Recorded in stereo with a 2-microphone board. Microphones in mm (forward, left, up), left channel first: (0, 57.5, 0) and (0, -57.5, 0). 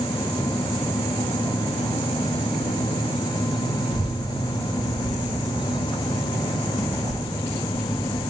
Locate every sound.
3.9 s a child speaking: 40° left (ahead or behind), 1.2 m; by 8.2 s 15° left (ahead or behind), 4.5 m